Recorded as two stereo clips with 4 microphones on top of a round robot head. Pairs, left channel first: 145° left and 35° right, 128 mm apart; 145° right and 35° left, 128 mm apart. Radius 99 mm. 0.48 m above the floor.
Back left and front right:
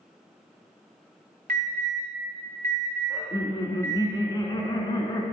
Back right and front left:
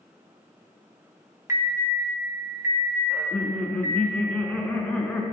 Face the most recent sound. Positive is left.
turn(degrees=145)